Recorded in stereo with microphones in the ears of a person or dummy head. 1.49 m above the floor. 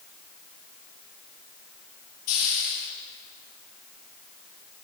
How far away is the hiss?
About 9 m.